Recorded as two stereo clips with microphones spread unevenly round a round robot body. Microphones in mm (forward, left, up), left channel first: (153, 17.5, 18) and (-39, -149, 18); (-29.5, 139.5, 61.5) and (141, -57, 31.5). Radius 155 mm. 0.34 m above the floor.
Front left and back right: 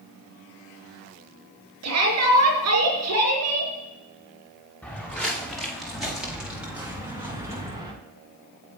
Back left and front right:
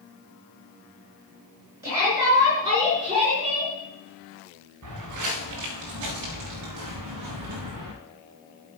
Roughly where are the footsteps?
Ahead right.